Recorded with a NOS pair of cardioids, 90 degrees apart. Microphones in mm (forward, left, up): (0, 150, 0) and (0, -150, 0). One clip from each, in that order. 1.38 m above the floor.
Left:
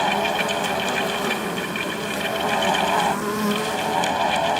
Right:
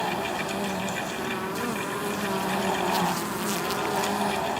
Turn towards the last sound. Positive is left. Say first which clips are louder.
# left 7 dB
turn(degrees=55)